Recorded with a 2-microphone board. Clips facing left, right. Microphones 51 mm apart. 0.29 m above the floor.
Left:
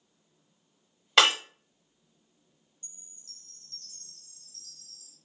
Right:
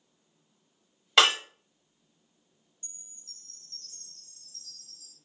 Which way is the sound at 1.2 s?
Centre (ahead or behind).